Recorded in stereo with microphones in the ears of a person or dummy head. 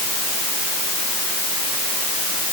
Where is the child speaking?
I don't hear a child speaking.